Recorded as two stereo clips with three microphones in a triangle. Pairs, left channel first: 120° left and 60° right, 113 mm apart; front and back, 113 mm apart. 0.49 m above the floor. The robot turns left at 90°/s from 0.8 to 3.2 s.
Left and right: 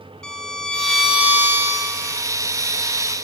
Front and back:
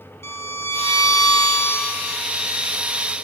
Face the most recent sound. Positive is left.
turn(degrees=-170)